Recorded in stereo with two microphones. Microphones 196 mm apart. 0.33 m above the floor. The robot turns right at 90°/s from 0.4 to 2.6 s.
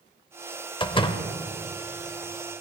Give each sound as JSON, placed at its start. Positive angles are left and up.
{"t": 0.8, "sound": "a door slam", "side_deg": 25, "distance_m": 0.6}